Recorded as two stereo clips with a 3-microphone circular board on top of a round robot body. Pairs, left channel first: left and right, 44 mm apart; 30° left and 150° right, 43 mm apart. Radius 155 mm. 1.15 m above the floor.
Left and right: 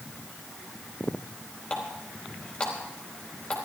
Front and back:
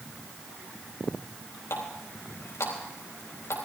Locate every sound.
1.7 s a running tap: 30° left, 4 m